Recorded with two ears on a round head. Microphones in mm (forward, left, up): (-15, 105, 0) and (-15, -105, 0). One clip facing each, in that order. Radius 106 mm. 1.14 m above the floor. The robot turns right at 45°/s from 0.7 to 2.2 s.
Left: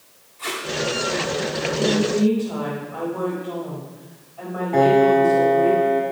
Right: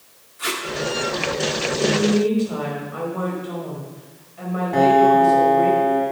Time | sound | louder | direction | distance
0.4 | tape being pulled | right 2 dB | 15° right (ahead or behind) | 1.8 m
1.8 | a woman speaking | right 1 dB | 10° right (ahead or behind) | 5 m
4.7 | a piano | left 1 dB | 15° right (ahead or behind) | 2.5 m